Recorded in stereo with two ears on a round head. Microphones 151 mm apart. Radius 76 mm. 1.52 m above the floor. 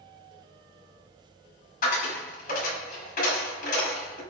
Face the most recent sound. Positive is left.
turn(degrees=50)  # may be behind; listen again after turning